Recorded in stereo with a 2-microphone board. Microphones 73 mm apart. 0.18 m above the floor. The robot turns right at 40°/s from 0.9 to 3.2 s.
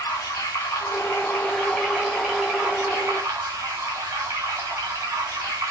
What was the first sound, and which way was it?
Running water, 120° left.